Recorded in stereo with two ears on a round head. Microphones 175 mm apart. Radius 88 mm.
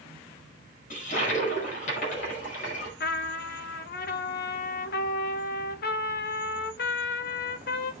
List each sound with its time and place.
0.9 s a toilet flushing: 45° left (ahead or behind), 5 m
3.0 s a trumpet: 55° left (ahead or behind), 0.9 m